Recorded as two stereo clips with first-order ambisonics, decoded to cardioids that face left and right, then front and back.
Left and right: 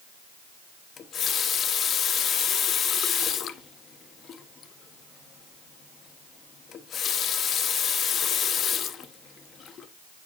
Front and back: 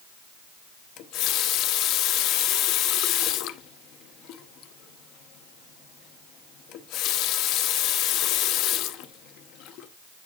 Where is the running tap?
35° left, 0.7 m.